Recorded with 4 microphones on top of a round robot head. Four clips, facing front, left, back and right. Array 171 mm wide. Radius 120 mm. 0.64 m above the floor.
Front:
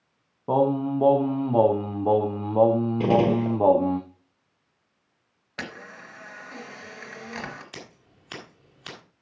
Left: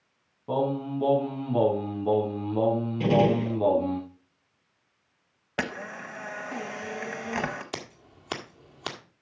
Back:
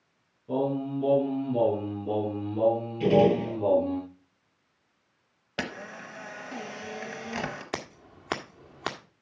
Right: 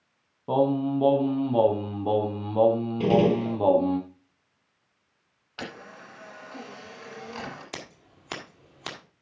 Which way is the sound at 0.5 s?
15° right.